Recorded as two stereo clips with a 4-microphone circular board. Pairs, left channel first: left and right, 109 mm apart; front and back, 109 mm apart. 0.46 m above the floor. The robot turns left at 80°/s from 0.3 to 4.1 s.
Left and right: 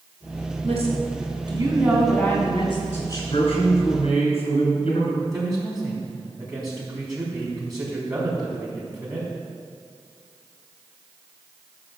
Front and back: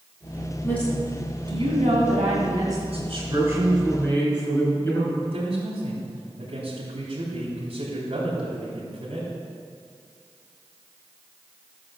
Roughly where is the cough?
No cough in this recording.